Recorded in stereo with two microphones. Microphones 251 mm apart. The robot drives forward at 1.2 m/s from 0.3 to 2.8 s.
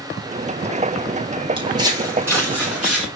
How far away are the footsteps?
About 4.5 m.